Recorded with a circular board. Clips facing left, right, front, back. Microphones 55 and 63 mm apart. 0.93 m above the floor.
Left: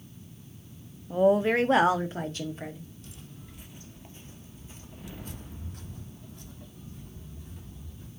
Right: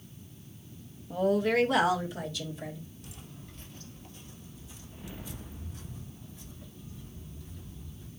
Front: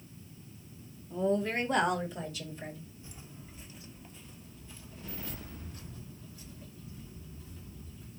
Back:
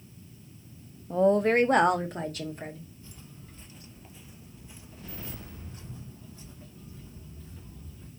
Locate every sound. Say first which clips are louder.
1.1 s a woman speaking: left 4 dB, back 8 dB; 165° left, 0.8 m; by 2.8 s 140° left, 1.9 m
3.0 s footsteps: even, even; 30° right, 0.9 m; by 8.1 s 120° left, 3 m